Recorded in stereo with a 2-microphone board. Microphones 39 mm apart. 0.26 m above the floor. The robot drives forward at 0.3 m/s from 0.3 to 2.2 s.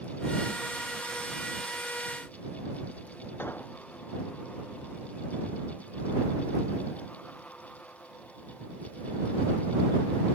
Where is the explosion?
65° left (ahead or behind).